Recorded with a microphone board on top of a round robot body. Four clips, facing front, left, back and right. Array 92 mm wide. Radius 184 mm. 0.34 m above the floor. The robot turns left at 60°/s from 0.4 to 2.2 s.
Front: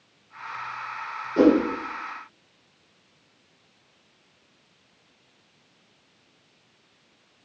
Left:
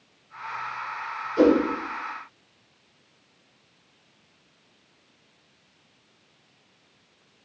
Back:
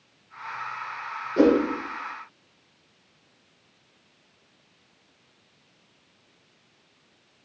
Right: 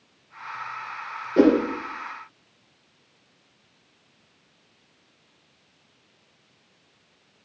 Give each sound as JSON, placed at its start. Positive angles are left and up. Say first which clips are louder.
{"t": 1.4, "sound": "a whoosh", "louder": "right 1 dB, front 1 dB", "azimuth_deg": -85, "distance_m": 3.5}